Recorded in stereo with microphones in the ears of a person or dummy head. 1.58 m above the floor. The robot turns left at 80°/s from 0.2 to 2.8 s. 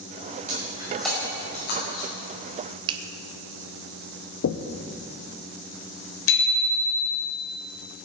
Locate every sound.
0.5 s breaking glass: 45° right (ahead or behind), 5.5 m; by 2.1 s 80° left, 5.5 m
2.9 s a finger snap: 30° right (ahead or behind), 1.0 m
4.4 s knocking: 70° left (ahead or behind), 0.7 m
6.3 s a bicycle bell: 75° left (ahead or behind), 4.5 m